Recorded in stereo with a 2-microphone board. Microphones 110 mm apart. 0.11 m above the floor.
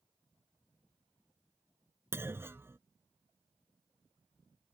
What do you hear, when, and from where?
2.1 s a clunk: 20° right (ahead or behind)